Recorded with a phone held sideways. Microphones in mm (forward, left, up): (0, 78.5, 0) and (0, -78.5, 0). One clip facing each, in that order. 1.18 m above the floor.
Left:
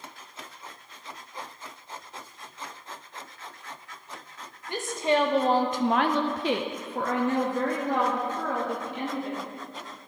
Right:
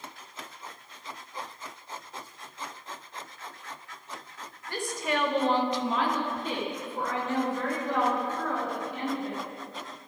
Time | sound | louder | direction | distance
4.7 | a woman speaking | left 5 dB | 20° left (ahead or behind) | 0.9 m